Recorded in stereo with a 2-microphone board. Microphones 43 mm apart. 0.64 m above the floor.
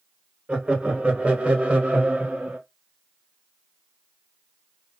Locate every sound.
0.5 s laughter: 25° right (ahead or behind), 2.5 m; by 2.6 s 35° right (ahead or behind), 1.4 m